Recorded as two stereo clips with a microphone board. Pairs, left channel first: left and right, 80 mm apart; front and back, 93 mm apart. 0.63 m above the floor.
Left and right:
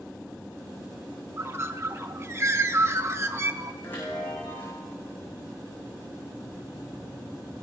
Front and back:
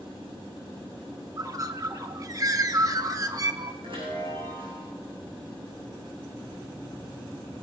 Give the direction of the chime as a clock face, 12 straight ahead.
7 o'clock.